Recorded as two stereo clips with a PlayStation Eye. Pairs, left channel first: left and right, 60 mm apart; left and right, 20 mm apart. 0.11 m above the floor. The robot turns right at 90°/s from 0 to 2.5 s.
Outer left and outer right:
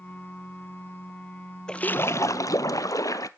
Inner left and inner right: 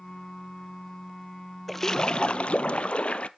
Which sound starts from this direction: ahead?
A splash, at 1.7 s.